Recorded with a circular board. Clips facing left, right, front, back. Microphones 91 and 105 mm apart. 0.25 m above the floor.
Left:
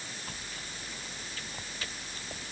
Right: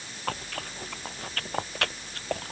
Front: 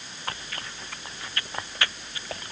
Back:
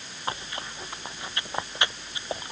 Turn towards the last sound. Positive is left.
turn(degrees=-110)